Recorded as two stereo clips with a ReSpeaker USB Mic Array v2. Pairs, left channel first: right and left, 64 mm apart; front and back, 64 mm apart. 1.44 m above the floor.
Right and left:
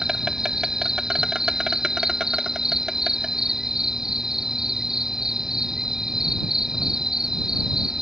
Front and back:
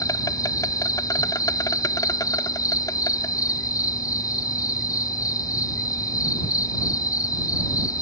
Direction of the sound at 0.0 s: 5° left.